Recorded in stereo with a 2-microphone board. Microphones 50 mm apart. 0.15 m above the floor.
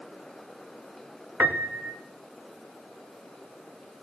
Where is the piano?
40° right (ahead or behind), 1.4 m.